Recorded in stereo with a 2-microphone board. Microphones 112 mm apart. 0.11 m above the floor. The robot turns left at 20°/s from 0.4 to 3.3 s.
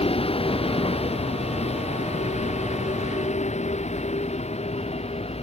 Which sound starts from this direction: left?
A vehicle, at 0.0 s.